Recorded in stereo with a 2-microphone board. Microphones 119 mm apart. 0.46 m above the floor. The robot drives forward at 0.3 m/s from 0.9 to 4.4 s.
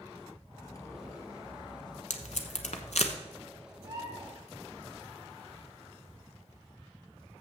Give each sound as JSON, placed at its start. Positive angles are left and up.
{"t": 0.5, "sound": "cutlery clinking", "side_deg": 30, "distance_m": 1.2}
{"t": 2.1, "sound": "tape being pulled", "side_deg": 80, "distance_m": 1.0}
{"t": 3.8, "sound": "a bird", "side_deg": -35, "distance_m": 3.0}